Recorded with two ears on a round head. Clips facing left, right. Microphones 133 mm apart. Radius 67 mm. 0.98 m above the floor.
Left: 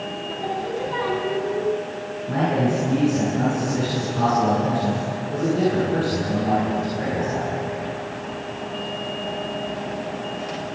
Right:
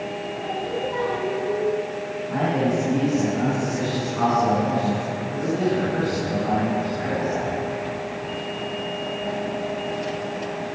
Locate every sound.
0.3 s singing: 65° left (ahead or behind), 5.5 m
2.3 s a man speaking: 35° left (ahead or behind), 10 m